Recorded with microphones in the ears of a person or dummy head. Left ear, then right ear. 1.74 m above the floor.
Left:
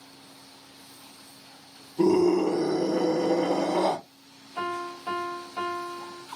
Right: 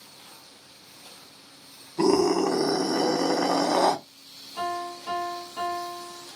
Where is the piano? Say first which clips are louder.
Right 1 dB; 15° left (ahead or behind), 0.8 m.